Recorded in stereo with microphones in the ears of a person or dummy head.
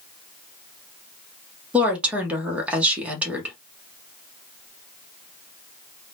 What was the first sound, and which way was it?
A woman speaking, 10° right (ahead or behind).